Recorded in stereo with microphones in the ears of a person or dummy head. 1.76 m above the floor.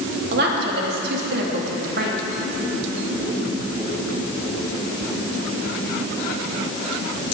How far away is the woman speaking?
About 3 m.